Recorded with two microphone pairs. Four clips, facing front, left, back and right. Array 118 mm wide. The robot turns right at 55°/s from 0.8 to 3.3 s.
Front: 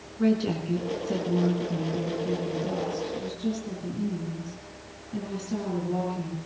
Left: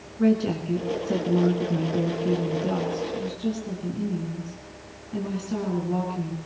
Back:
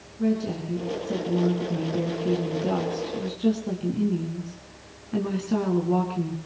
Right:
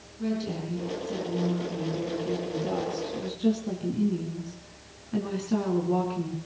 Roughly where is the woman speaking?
Ahead left.